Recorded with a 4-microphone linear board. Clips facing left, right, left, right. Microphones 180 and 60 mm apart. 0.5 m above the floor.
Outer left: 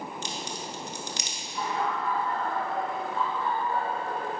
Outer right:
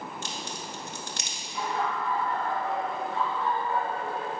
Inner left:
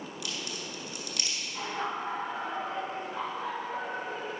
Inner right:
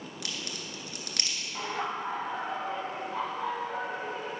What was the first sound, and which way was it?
A crack, 55° right (ahead or behind).